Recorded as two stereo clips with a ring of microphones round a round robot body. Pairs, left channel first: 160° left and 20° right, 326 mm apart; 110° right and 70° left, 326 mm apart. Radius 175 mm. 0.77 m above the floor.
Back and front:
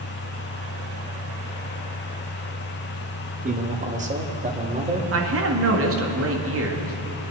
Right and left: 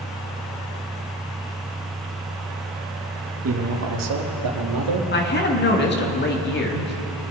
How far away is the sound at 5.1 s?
About 1.7 m.